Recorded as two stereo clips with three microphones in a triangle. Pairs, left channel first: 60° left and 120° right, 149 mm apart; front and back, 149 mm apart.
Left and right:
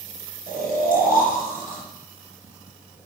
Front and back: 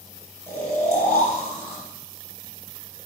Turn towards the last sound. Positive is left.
turn(degrees=75)